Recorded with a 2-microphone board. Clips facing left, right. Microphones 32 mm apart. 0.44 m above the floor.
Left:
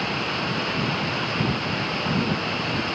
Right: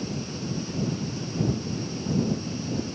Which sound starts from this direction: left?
Running water, at 0.0 s.